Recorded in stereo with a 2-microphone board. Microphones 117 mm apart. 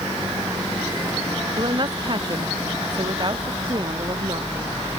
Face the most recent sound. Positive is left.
turn(degrees=-40)  # may be behind; listen again after turning